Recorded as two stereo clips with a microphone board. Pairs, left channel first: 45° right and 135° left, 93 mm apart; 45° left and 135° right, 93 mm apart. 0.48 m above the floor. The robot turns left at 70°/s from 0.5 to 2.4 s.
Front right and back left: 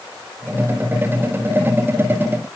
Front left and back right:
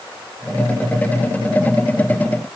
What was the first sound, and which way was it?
Only background noise.